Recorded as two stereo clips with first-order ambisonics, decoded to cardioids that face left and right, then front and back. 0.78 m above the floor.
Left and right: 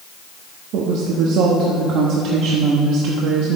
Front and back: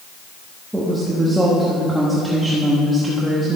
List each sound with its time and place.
0.7 s a woman speaking: 95° right, 1.0 m